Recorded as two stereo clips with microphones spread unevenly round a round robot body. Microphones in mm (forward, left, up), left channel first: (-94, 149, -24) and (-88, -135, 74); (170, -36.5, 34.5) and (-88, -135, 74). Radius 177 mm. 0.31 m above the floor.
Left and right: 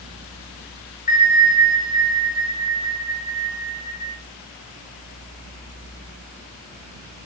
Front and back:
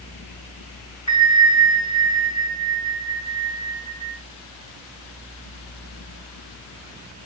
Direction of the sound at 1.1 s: 35° left.